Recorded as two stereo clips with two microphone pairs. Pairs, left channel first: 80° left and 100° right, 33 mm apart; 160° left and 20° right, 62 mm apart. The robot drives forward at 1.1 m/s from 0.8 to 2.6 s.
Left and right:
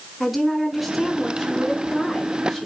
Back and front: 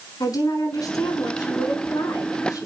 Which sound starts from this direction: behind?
A woman speaking, at 0.2 s.